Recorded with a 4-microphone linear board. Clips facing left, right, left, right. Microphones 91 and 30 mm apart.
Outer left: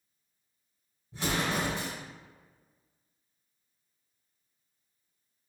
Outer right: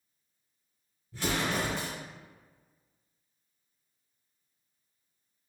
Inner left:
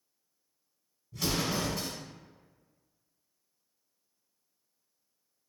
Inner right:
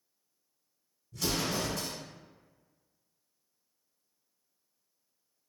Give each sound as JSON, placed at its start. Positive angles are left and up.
{"t": 1.1, "sound": "an explosion", "side_deg": 20, "distance_m": 1.1}